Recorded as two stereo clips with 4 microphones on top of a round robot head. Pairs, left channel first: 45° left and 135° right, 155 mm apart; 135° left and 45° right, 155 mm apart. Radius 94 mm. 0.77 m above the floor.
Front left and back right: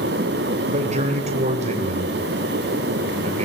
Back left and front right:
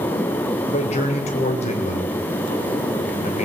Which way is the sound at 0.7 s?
Straight behind.